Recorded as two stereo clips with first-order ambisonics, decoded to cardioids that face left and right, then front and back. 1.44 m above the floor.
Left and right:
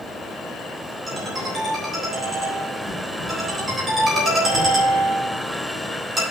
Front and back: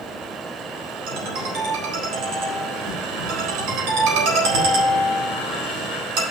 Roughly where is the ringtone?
Behind.